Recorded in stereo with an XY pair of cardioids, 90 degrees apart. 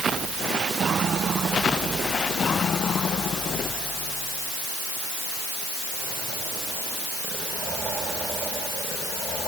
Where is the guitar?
No guitar in this recording.